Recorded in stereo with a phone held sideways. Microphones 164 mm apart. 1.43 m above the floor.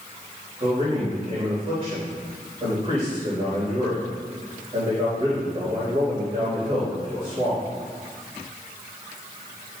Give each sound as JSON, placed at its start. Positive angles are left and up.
{"t": 0.6, "sound": "a man speaking", "side_deg": -45, "distance_m": 3.0}